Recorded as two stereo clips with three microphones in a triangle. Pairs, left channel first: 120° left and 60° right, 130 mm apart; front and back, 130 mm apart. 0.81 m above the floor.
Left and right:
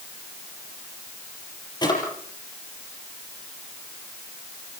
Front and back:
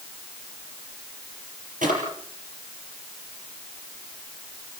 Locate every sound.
1.8 s a drawer: 175° left, 6 m